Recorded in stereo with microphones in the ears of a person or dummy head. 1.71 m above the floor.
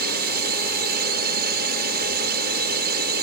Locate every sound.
0.0 s a drone: 55° right (ahead or behind)